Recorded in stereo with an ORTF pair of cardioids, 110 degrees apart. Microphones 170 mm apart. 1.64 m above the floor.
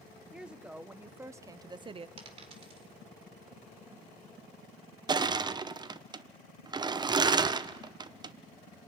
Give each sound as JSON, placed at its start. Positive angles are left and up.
{"t": 0.3, "sound": "a woman speaking", "azimuth_deg": -5, "distance_m": 1.7}
{"t": 2.2, "sound": "a dropped coin", "azimuth_deg": -35, "distance_m": 3.0}
{"t": 5.1, "sound": "crushing", "azimuth_deg": -25, "distance_m": 0.7}